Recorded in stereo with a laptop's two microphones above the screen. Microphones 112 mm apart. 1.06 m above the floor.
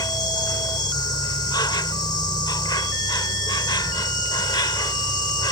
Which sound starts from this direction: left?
An insect, at 0.0 s.